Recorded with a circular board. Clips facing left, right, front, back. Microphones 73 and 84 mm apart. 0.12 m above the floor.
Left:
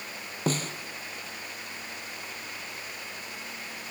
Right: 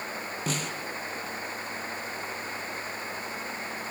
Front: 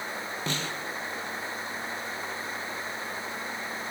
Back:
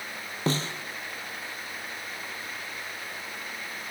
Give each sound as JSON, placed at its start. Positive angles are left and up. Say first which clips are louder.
{"t": 0.5, "sound": "a snare drum", "louder": "left 4 dB, back 7 dB", "azimuth_deg": 130, "distance_m": 3.0}